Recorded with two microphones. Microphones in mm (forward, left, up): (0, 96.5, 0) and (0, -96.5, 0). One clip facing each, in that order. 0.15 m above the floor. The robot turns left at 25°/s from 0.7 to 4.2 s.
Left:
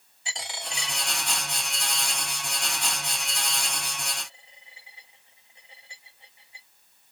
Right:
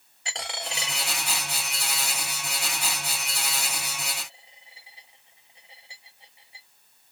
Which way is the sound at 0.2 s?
65° right (ahead or behind).